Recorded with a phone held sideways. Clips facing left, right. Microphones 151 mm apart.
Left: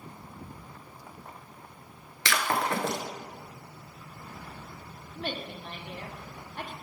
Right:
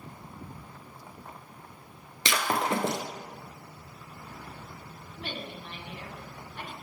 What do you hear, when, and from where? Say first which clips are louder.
2.2 s breaking glass: even; 20° right (ahead or behind), 1.0 m
5.2 s a woman speaking: left 3 dB; 45° left (ahead or behind), 1.4 m